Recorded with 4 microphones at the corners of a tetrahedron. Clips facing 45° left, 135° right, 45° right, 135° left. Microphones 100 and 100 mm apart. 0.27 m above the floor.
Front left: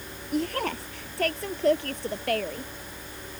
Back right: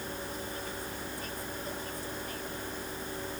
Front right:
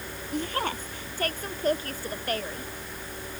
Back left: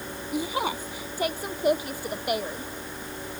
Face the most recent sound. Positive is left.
turn(degrees=60)